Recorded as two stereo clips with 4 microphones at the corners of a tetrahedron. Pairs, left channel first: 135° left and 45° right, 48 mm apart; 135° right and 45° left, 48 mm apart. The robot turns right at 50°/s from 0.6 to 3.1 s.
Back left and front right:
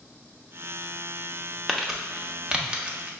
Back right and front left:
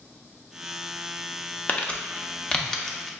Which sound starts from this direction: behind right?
Crumpling, at 1.7 s.